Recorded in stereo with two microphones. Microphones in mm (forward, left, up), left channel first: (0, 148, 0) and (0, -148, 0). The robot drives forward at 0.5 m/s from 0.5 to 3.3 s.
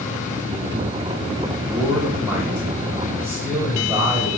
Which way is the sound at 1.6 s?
5° right (ahead or behind).